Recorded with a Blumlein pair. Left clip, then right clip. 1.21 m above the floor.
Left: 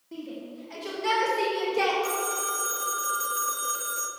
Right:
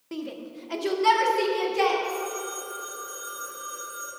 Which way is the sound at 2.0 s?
40° left.